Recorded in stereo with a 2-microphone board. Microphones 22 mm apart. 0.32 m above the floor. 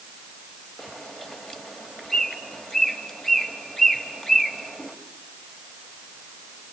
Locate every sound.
0.8 s a bird: 30° left (ahead or behind), 1.9 m